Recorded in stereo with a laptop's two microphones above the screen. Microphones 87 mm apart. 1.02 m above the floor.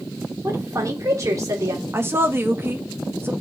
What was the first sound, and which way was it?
A woman speaking, 40° right (ahead or behind).